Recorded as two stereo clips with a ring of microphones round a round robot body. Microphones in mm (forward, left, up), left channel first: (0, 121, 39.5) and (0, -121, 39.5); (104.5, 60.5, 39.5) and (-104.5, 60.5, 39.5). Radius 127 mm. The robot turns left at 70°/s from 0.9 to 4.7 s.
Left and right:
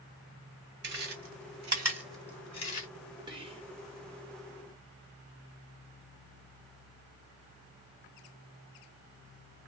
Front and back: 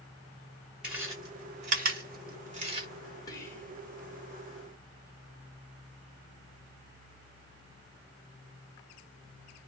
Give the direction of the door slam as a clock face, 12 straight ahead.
I don't hear a door slam.